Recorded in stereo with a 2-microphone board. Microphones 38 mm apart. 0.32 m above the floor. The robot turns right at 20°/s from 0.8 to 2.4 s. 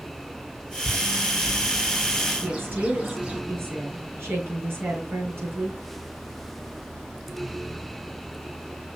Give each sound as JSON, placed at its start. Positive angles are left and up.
{"t": 0.8, "sound": "a bird", "side_deg": 0, "distance_m": 2.0}
{"t": 2.4, "sound": "a woman speaking", "side_deg": -75, "distance_m": 6.0}